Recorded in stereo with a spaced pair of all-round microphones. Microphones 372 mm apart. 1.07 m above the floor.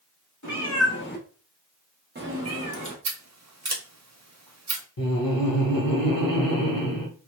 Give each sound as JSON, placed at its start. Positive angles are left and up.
{"t": 0.4, "sound": "a cat meowing", "side_deg": 50, "distance_m": 0.9}
{"t": 3.0, "sound": "scissors", "side_deg": -45, "distance_m": 0.5}
{"t": 5.0, "sound": "laughter", "side_deg": 65, "distance_m": 0.9}